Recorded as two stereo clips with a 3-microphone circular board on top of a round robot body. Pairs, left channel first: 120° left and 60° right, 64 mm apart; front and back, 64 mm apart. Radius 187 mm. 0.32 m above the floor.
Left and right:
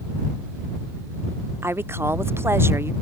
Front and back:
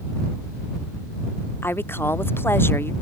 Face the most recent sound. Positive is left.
turn(degrees=-35)